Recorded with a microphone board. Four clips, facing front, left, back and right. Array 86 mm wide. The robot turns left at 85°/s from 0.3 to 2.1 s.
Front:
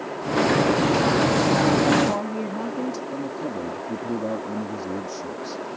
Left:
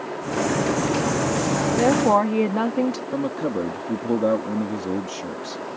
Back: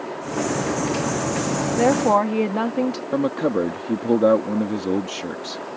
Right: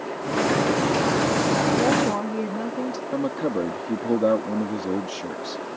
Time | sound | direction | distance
1.8 | a woman speaking | 170° left | ?
3.1 | a man speaking | 175° right | ?